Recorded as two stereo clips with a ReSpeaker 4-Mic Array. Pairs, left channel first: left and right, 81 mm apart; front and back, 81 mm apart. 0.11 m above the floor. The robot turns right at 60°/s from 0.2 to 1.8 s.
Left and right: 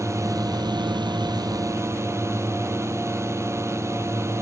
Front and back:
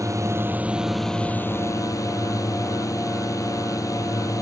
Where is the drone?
135° right; by 4.4 s 40° right.